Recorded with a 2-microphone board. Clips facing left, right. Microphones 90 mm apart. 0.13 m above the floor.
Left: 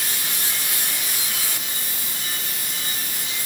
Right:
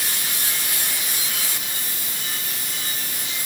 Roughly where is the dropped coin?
I don't hear a dropped coin.